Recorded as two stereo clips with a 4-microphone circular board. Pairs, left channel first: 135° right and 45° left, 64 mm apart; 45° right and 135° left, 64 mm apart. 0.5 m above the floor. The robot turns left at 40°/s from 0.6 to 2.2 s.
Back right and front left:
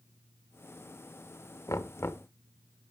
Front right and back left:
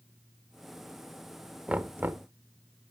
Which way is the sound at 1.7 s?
155° right.